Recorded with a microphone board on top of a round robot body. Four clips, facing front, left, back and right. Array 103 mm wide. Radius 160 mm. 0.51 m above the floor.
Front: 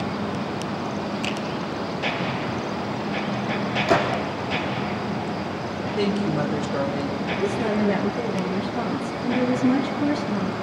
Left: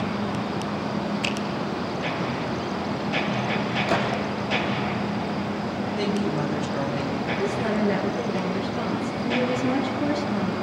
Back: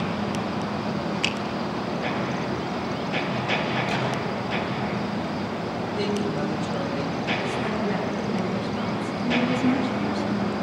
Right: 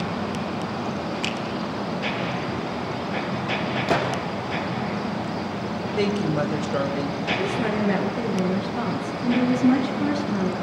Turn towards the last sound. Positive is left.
turn(degrees=-80)